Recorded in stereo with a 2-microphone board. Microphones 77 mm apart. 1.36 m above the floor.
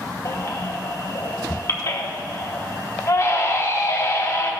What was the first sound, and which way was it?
A baby crying, 40° left (ahead or behind).